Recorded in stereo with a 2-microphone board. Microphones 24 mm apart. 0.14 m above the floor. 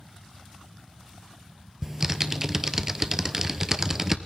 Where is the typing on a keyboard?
20° right (ahead or behind), 0.6 m.